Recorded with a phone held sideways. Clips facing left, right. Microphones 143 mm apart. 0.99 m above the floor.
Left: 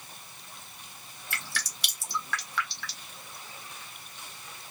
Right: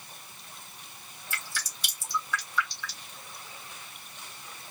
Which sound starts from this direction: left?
Dripping, at 1.3 s.